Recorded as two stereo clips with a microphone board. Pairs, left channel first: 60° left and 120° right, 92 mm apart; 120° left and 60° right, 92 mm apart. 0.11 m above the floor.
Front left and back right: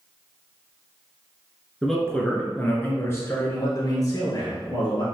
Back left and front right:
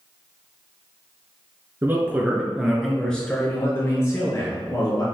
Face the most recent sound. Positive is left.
turn(degrees=85)